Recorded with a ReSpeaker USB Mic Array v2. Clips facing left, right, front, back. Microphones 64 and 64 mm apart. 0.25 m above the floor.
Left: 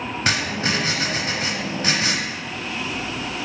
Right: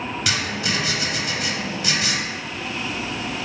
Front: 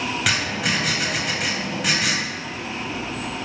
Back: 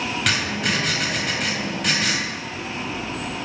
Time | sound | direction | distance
0.3 | writing | 85° left | 0.5 m